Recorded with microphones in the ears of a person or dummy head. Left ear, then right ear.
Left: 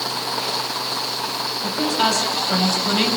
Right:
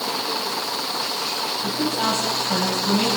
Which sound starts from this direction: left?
A woman speaking, at 1.6 s.